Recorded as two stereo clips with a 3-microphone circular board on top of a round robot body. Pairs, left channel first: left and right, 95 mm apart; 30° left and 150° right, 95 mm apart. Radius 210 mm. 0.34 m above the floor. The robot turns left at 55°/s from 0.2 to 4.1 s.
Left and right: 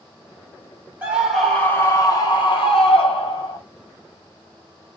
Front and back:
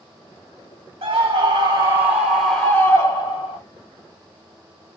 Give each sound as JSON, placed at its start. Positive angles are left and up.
{"t": 1.0, "sound": "a scream", "azimuth_deg": -160, "distance_m": 2.5}